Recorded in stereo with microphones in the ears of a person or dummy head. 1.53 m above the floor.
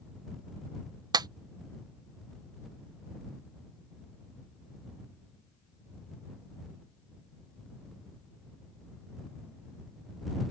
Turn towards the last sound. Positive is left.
turn(degrees=-20)  # may be behind; listen again after turning